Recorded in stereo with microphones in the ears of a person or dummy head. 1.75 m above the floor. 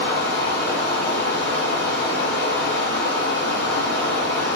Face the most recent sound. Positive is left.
turn(degrees=40)  # may be behind; listen again after turning